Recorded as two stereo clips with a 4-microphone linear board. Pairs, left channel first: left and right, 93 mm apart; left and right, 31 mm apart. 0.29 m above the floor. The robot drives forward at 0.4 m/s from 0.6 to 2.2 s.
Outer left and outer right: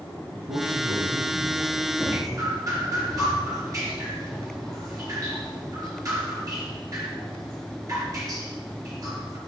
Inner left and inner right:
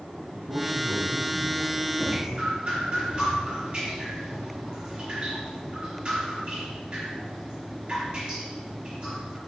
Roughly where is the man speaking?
Right.